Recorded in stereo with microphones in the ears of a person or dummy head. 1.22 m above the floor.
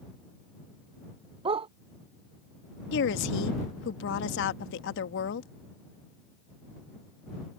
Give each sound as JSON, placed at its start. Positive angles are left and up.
{"t": 1.4, "sound": "a dog barking", "side_deg": -35}
{"t": 2.9, "sound": "a woman speaking", "side_deg": 75}